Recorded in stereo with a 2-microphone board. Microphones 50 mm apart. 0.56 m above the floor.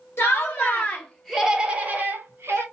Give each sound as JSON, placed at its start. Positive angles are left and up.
{"t": 0.2, "sound": "laughter", "side_deg": 50, "distance_m": 1.3}